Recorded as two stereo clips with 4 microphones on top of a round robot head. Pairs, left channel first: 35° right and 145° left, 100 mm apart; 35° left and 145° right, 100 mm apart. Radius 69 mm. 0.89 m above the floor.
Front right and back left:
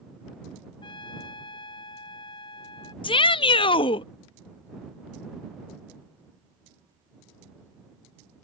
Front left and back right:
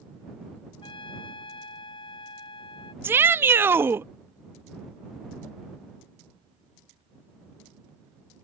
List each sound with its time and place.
0.8 s a trumpet: straight ahead
3.0 s a shout: 75° right